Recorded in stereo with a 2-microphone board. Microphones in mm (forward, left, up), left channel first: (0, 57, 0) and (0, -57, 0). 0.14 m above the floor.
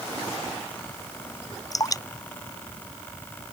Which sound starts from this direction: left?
Dripping, at 1.7 s.